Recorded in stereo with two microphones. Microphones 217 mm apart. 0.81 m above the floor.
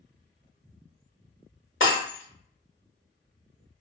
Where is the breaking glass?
70° left (ahead or behind), 1.1 m.